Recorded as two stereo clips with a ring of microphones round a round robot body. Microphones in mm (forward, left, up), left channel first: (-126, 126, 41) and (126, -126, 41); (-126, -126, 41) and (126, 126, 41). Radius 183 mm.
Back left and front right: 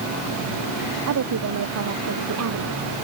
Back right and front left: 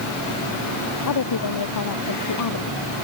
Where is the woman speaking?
95° right.